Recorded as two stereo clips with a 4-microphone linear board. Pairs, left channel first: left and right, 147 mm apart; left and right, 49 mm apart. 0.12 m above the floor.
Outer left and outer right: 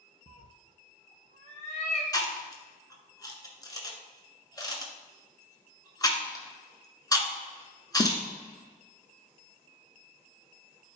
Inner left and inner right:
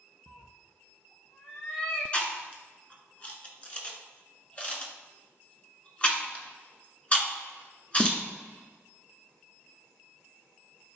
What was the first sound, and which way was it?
A cat meowing, 55° left (ahead or behind).